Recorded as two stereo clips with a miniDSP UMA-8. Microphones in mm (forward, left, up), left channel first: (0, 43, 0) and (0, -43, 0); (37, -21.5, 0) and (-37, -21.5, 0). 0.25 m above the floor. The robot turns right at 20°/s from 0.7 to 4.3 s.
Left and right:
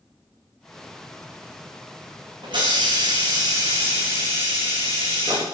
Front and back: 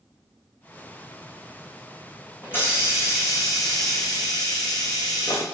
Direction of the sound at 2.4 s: 65° right.